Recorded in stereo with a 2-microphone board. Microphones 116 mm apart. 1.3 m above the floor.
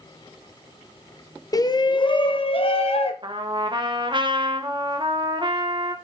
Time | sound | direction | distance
1.5 | a shout | 30° left (ahead or behind) | 0.8 m
3.2 | a trumpet | 45° right (ahead or behind) | 1.2 m